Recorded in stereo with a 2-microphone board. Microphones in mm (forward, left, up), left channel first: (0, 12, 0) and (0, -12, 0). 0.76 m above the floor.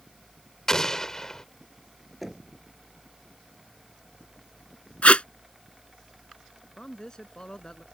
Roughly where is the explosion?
Left.